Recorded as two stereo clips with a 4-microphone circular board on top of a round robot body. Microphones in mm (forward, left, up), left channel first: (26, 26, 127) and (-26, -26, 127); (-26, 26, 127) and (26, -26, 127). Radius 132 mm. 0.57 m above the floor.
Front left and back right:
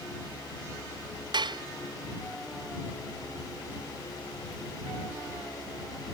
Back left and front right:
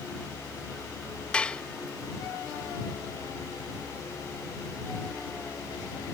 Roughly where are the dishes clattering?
Behind right.